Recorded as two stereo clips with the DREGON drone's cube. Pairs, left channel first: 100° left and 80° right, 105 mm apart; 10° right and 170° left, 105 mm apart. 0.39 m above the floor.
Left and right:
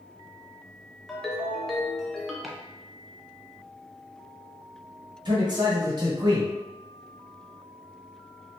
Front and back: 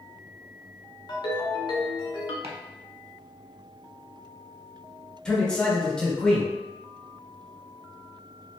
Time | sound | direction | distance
1.1 | a ringtone | 15° left | 0.7 m
2.4 | chopping | 165° right | 0.6 m
5.2 | a man speaking | 90° right | 1.2 m